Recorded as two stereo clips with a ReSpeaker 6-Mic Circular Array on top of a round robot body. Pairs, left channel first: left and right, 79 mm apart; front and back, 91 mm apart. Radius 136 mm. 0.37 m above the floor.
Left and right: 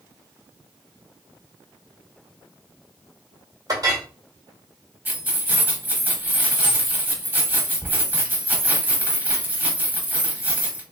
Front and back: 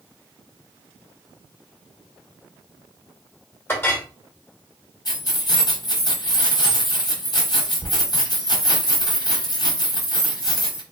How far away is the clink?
About 1.4 m.